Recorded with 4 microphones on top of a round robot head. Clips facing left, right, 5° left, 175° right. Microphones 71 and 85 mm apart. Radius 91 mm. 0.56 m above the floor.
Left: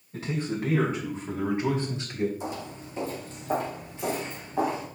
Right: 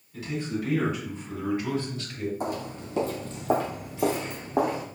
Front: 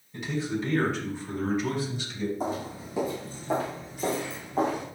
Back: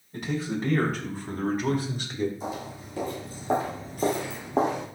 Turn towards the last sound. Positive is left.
turn(degrees=-145)